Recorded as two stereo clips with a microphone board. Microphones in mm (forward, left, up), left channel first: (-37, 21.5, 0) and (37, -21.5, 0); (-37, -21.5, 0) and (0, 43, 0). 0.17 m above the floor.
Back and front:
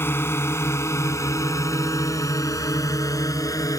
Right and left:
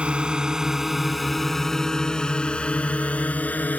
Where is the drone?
120° left; by 3.8 s straight behind.